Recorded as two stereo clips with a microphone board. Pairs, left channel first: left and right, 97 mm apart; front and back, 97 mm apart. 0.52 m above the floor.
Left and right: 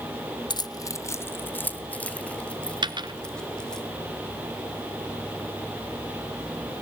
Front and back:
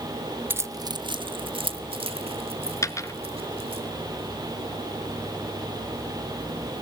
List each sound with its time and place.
0.5 s keys jangling: 115° left, 0.5 m; by 3.8 s 175° left, 2.5 m
2.8 s a dropped coin: 55° right, 0.9 m